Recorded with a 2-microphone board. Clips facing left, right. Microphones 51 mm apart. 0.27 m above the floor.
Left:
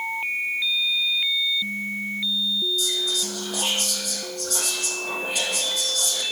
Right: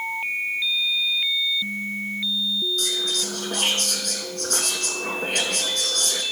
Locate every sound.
2.8 s whispering: 60° right (ahead or behind), 3 m